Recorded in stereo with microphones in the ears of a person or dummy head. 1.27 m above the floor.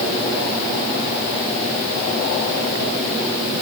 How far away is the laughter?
No laughter in this recording.